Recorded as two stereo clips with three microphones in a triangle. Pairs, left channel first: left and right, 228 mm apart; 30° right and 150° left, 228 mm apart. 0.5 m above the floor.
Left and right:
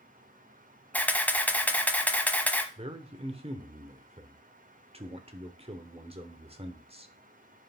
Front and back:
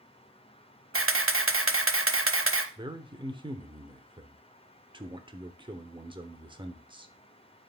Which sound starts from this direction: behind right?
A man speaking, at 2.8 s.